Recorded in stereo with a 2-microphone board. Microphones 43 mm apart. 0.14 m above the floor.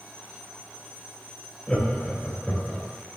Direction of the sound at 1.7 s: 20° left (ahead or behind).